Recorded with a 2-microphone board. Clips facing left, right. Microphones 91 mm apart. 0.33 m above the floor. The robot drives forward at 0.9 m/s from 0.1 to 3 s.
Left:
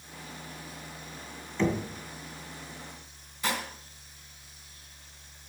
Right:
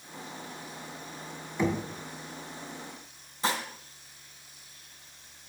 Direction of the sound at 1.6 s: 10° right (ahead or behind).